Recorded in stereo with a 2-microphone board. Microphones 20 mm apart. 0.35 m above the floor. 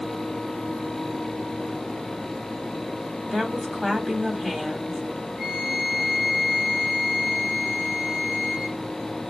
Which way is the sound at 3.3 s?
20° right (ahead or behind).